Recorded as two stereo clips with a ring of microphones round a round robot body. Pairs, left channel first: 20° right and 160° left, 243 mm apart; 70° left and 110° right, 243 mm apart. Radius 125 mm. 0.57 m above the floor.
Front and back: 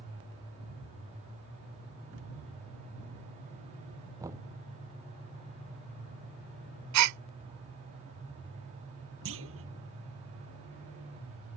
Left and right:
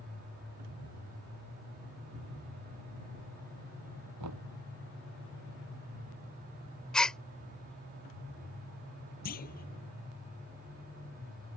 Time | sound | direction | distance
4.2 | knocking | 125° right | ?
6.9 | a gasp | 155° left | ?
9.2 | a clunk | 120° left | ?